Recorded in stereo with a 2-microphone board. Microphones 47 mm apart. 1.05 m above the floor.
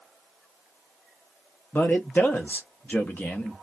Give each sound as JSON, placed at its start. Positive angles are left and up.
{"t": 1.7, "sound": "a man speaking", "side_deg": 40, "distance_m": 0.7}